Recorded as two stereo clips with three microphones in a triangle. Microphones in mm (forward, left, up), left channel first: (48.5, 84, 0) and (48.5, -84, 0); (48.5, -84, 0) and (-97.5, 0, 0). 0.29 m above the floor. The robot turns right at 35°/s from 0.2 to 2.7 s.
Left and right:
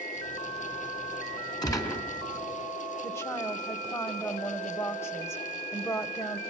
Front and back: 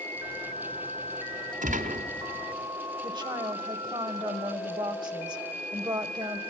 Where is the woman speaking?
140° left, 0.9 m.